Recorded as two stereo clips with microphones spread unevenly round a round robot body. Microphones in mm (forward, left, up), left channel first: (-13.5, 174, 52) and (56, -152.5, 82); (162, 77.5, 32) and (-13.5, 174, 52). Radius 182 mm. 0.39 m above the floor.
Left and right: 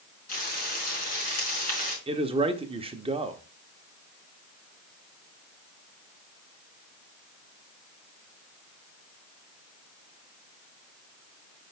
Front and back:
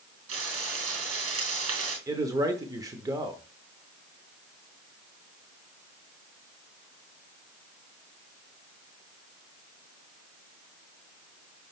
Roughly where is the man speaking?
Behind right.